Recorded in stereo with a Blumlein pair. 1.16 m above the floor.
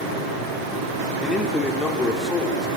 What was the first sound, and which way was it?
A man speaking, 10° left.